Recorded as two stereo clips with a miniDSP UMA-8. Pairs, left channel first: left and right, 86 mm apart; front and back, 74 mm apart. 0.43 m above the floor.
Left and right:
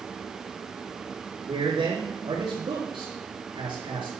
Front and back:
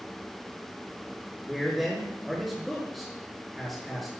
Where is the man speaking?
90° right, 6.5 m.